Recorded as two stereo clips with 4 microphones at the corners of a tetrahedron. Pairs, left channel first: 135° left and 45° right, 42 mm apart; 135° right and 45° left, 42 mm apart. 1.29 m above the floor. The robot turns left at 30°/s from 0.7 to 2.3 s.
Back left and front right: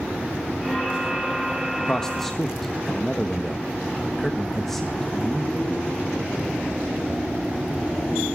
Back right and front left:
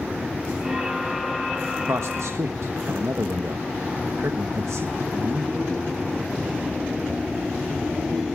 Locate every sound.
1.9 s a man speaking: 65° left, 1.2 m; by 5.6 s 50° left, 1.2 m